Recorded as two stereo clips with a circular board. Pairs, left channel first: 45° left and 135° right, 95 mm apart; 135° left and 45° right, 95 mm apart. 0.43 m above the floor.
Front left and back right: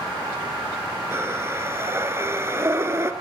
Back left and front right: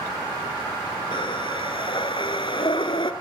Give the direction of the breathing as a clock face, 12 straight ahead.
7 o'clock.